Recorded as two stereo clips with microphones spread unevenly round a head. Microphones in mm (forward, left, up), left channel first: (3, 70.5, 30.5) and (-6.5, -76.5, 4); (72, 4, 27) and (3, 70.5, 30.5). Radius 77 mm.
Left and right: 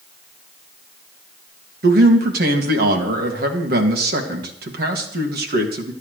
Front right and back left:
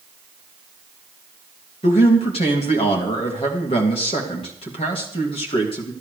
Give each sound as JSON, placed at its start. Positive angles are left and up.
{"t": 1.8, "sound": "a man speaking", "azimuth_deg": -80, "distance_m": 2.5}